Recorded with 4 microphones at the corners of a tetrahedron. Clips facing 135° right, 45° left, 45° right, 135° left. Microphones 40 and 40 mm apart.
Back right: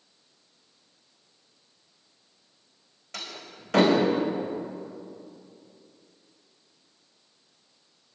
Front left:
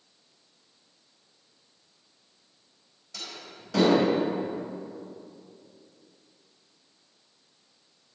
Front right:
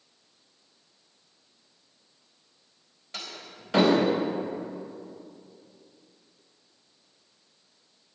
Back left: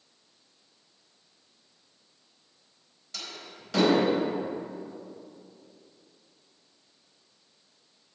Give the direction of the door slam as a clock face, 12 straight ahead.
4 o'clock.